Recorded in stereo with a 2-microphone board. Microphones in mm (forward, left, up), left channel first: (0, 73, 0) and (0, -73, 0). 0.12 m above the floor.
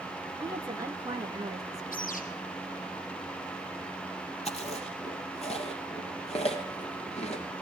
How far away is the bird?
About 3 m.